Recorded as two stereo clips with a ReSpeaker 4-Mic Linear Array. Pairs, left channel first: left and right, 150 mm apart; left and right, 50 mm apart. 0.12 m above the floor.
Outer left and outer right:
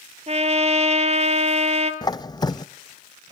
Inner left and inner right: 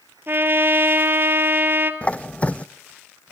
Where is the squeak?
30° left (ahead or behind), 0.5 m.